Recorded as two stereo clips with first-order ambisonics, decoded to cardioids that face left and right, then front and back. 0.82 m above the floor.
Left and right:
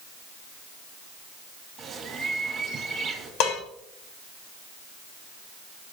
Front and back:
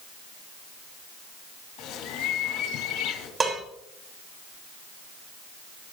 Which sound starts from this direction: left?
Dishes clattering, at 3.4 s.